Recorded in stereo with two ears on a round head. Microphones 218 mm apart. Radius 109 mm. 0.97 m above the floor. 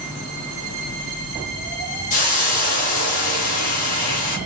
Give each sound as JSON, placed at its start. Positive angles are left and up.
{"t": 2.1, "sound": "a hiss", "side_deg": 35, "distance_m": 1.4}